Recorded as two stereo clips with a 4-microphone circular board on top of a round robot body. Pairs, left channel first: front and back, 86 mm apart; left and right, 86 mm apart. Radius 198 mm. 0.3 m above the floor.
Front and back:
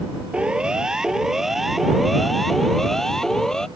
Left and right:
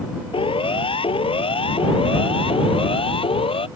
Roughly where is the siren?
Left.